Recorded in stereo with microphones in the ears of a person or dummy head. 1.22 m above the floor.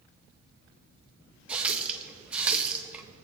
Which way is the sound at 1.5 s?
5° right (ahead or behind).